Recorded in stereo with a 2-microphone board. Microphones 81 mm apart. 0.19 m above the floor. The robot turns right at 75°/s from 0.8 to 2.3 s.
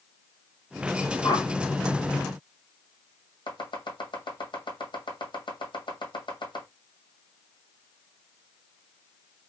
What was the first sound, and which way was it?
A whoosh, 60° left (ahead or behind).